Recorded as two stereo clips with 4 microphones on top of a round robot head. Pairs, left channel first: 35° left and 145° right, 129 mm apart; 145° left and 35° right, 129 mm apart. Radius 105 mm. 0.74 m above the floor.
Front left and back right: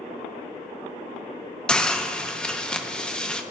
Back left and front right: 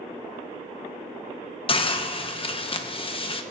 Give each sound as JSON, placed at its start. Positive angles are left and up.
{"t": 1.7, "sound": "a hiss", "azimuth_deg": 120, "distance_m": 0.9}